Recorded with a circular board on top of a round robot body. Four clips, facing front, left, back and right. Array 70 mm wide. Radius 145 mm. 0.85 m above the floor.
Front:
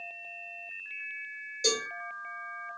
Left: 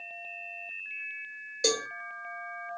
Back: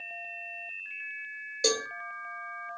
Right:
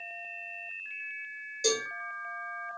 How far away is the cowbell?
About 2 m.